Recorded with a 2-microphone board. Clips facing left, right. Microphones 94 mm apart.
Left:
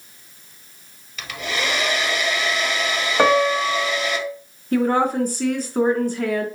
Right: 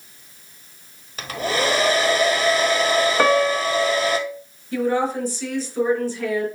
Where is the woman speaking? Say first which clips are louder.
Left 3 dB; 60° left (ahead or behind), 2.5 m.